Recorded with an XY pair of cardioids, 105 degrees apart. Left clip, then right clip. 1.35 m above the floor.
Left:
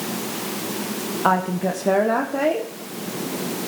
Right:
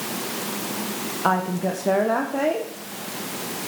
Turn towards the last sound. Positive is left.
turn(degrees=15)